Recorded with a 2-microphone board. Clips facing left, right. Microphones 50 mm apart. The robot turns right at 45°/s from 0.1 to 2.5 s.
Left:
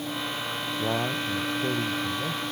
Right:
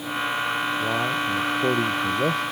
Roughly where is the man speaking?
Behind.